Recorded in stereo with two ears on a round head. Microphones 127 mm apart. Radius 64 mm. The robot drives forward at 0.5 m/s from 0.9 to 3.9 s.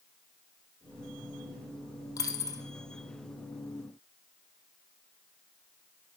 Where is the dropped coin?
25° left (ahead or behind), 1.7 m; by 2.6 s 30° left (ahead or behind), 1.5 m.